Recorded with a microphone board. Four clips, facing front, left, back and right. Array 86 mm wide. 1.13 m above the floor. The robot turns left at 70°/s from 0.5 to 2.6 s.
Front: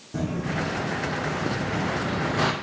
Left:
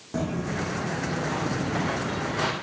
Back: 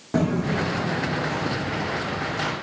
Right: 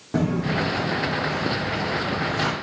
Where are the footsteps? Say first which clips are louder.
Right 5 dB, back 5 dB; 160° right, 2 m; by 2.5 s 5° left, 2.0 m.